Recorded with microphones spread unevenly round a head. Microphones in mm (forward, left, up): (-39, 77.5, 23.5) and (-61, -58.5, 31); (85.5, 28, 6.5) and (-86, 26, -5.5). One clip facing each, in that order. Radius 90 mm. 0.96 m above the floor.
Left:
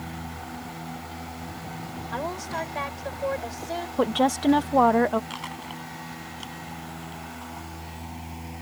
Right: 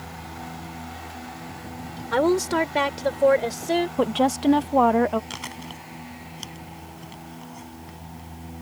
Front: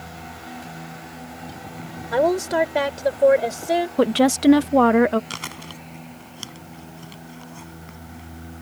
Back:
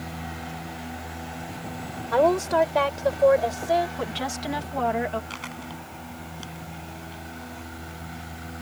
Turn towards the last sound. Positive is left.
turn(degrees=-40)